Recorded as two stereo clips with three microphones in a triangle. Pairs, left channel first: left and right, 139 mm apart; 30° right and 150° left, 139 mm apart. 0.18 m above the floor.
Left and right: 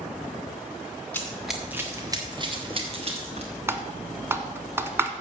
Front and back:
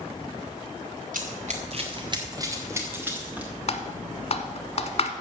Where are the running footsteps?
165° left, 1.6 m; by 3.5 s 130° right, 4 m.